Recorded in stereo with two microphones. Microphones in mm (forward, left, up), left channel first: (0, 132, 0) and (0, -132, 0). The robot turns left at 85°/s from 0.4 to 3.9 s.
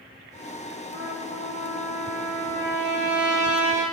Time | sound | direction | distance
0.9 | a trumpet | 55° right | 4.5 m